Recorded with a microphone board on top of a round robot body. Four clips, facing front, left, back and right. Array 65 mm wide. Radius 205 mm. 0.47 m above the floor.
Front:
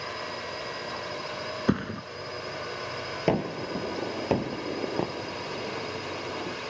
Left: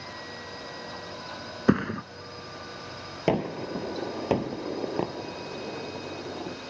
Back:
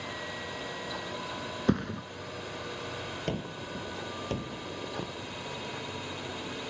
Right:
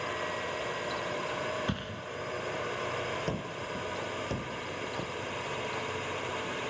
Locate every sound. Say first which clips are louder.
0.0 s a drone: right 6 dB, front 3 dB; 50° right
1.7 s a thud: left 12 dB, front 1 dB; 85° left
3.3 s a gunshot: left 8 dB, front 12 dB; 55° left